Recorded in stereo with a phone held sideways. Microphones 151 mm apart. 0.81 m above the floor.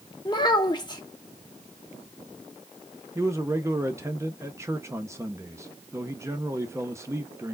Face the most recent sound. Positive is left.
turn(degrees=-20)  # may be behind; listen again after turning